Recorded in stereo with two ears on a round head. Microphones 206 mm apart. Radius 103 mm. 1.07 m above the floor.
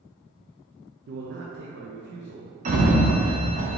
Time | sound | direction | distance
1.1 | a man speaking | 50° right (ahead or behind) | 0.5 m
2.6 | a sliding door | 35° right (ahead or behind) | 0.6 m